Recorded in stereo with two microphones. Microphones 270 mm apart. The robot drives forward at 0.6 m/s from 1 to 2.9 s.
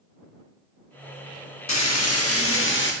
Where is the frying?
80° left, 0.8 m; by 2.9 s 40° left (ahead or behind), 1.2 m.